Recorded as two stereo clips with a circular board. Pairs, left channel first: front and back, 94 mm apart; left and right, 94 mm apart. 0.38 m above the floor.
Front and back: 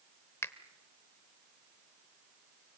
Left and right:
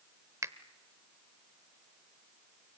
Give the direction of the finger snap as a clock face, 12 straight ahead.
2 o'clock.